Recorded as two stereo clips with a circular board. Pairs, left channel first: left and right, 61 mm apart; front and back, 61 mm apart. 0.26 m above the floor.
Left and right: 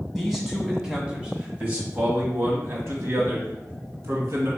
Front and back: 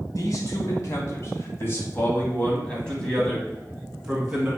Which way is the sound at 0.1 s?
5° right.